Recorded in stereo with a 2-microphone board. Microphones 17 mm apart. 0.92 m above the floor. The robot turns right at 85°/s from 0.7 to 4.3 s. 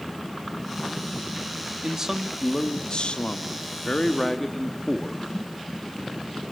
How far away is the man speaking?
About 1.4 m.